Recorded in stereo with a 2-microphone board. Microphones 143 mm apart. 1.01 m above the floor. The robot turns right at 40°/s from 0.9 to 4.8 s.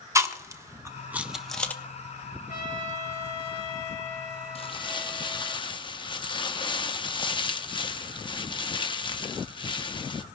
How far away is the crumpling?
About 0.6 m.